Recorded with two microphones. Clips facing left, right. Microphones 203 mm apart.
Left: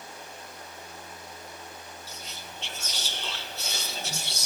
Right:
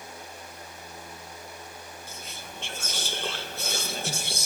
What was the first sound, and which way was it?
Whispering, 50° right (ahead or behind).